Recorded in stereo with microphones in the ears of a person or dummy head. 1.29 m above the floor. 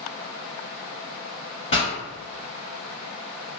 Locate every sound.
1.7 s a pop: 35° left (ahead or behind), 1.9 m